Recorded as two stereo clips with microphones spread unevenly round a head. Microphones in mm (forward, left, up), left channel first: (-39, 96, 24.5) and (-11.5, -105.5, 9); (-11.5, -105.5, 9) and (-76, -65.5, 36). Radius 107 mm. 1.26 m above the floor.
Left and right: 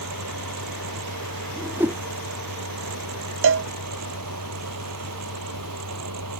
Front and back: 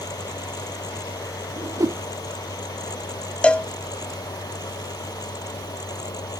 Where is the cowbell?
105° right.